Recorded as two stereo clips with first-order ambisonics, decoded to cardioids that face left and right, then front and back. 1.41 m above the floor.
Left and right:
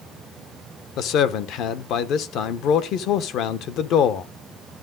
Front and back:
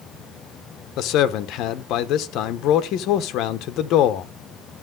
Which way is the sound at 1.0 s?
45° left.